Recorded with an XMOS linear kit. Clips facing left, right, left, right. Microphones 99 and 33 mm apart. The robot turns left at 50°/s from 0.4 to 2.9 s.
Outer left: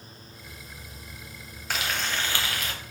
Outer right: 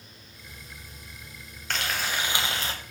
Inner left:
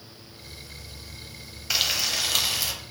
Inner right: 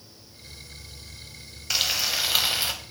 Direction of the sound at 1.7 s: 10° left.